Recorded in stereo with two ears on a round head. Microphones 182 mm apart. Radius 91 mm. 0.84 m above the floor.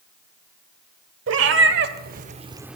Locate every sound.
1.3 s a cat meowing: 65° right (ahead or behind), 1.2 m; by 2.8 s centre (ahead or behind), 0.5 m